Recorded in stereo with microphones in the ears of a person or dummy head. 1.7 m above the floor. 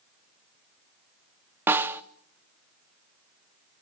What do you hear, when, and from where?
1.7 s a snare drum: 10° right (ahead or behind), 0.6 m